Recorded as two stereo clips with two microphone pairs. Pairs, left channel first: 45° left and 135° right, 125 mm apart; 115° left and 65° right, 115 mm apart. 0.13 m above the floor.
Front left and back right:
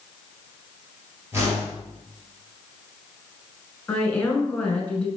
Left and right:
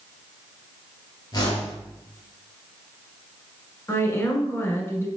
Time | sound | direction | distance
1.3 | a whoosh | 160° left | 2.0 m
3.9 | a woman speaking | 100° left | 1.2 m